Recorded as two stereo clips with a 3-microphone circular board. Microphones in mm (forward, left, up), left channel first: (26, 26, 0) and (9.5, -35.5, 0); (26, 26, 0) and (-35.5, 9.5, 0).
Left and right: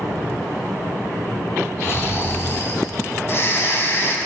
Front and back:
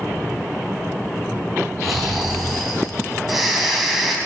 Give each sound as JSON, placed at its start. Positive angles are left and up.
{"t": 1.8, "sound": "snoring", "azimuth_deg": 110, "distance_m": 2.5}